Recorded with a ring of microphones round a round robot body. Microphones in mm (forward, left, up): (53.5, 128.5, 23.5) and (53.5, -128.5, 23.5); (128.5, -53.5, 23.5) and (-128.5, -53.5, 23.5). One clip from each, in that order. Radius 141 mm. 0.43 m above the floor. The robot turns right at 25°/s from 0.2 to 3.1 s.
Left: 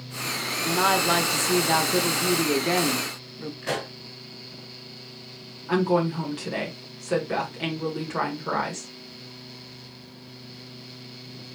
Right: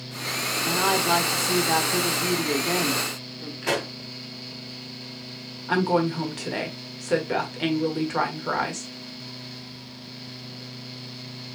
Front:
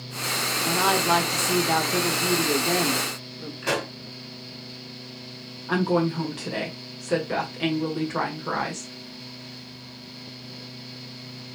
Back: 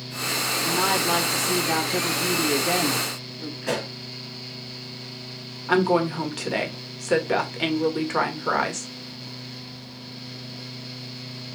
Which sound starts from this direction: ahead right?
A pop, at 3.6 s.